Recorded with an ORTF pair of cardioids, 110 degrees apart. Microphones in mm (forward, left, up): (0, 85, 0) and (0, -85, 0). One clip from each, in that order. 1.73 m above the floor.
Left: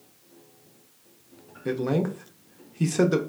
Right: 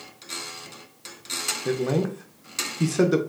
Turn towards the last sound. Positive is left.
turn(degrees=0)